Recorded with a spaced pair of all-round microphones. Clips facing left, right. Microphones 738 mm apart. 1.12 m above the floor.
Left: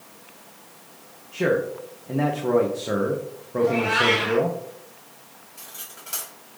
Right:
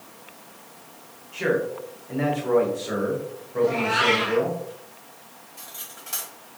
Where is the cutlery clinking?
30° right (ahead or behind), 2 m.